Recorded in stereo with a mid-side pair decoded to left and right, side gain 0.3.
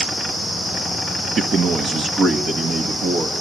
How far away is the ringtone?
I don't hear a ringtone.